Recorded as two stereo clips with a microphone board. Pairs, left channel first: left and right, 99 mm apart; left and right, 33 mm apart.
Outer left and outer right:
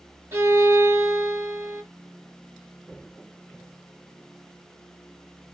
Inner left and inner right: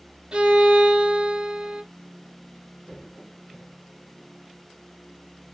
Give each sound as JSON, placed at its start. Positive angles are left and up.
{"t": 0.3, "sound": "a violin", "side_deg": -25, "distance_m": 0.7}